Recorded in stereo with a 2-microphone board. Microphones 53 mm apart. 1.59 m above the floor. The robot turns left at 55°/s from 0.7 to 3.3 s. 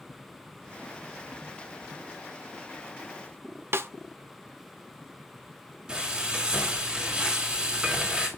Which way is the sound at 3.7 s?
50° right (ahead or behind).